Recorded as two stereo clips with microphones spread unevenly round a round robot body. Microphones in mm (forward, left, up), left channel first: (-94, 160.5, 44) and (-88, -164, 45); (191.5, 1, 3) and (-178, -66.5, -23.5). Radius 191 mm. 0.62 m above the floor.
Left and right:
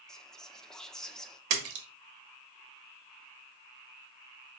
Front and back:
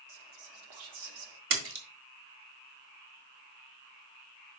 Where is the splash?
110° right, 1.5 m.